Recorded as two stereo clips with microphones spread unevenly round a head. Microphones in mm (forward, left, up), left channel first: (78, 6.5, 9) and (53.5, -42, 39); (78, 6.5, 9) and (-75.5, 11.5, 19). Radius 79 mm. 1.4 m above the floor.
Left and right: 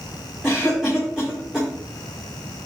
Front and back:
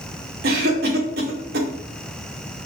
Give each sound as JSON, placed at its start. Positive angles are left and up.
{"t": 0.4, "sound": "a cough", "azimuth_deg": 160, "distance_m": 2.5}